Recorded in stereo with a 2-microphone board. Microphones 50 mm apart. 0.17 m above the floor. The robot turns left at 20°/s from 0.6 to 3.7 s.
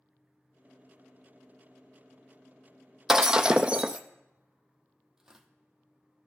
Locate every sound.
3.1 s breaking glass: 10° right (ahead or behind), 0.6 m; by 4.0 s 20° right (ahead or behind), 0.6 m
5.2 s tearing paper: 10° right (ahead or behind), 1.4 m